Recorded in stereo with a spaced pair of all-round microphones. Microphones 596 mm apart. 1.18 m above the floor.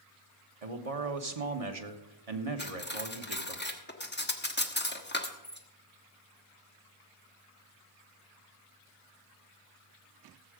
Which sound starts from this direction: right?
A man speaking, at 0.6 s.